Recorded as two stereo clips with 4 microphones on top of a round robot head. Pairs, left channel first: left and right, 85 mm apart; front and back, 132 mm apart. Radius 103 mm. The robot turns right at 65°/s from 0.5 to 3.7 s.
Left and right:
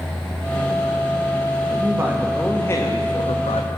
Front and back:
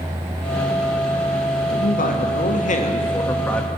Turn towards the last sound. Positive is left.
turn(degrees=90)